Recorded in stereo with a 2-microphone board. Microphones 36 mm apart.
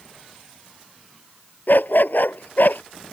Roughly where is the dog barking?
Left.